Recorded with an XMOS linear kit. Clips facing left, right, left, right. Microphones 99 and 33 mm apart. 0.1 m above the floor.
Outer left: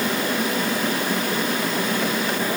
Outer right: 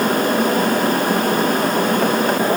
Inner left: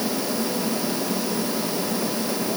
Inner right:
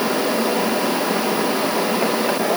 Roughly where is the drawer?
No drawer in this recording.